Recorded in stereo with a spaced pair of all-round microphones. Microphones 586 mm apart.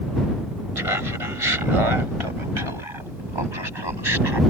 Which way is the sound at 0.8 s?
65° right (ahead or behind).